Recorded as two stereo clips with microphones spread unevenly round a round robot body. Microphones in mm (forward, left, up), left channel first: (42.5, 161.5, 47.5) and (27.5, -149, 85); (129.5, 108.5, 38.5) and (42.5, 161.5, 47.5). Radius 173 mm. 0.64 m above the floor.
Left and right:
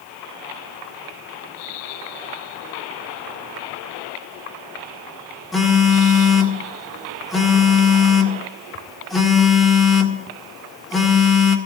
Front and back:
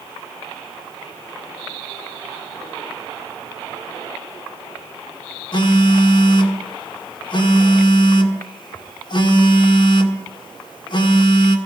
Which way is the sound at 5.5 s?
Straight ahead.